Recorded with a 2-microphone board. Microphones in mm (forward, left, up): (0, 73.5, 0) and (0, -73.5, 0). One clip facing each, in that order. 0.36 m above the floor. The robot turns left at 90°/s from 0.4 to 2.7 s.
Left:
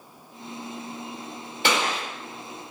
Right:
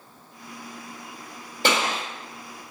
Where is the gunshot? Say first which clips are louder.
Right 1 dB; 115° right, 1.7 m; by 2.0 s 145° right, 1.7 m.